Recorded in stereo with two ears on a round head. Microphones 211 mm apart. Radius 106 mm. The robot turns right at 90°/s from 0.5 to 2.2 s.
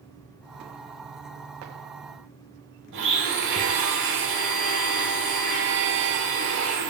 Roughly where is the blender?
Right.